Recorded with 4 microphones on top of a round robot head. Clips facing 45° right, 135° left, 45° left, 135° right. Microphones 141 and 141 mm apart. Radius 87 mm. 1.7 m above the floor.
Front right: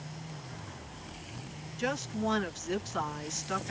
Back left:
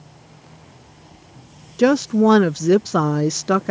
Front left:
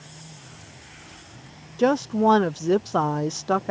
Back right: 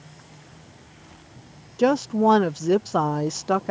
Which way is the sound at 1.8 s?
140° left.